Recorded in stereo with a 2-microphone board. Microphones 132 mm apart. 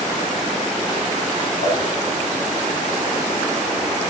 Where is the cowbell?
35° left (ahead or behind), 1.0 m.